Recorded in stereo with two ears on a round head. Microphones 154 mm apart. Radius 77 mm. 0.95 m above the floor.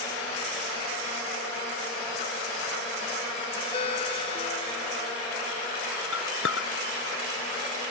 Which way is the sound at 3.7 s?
35° left (ahead or behind).